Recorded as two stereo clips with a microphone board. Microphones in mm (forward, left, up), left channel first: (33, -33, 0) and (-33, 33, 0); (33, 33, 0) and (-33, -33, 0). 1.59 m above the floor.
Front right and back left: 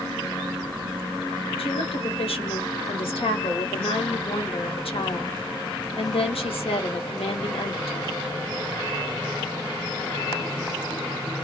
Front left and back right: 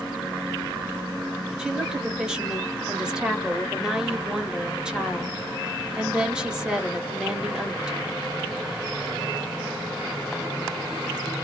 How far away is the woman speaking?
About 1.1 m.